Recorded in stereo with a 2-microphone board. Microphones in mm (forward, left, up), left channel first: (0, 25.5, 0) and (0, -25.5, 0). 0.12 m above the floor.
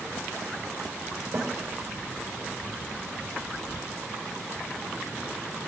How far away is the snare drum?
About 5.5 m.